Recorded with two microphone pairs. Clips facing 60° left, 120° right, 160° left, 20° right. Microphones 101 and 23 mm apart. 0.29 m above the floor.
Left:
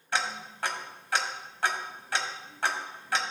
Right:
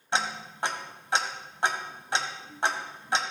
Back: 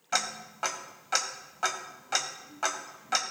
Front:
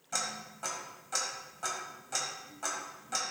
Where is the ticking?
Straight behind, 1.0 m.